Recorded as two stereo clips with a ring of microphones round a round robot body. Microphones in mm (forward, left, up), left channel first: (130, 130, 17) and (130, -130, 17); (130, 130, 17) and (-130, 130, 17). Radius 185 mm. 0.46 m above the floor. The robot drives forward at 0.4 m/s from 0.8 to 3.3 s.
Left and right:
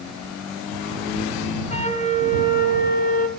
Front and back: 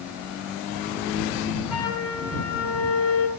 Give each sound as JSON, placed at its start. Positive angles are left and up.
{"t": 1.7, "sound": "a flute", "azimuth_deg": 25, "distance_m": 2.5}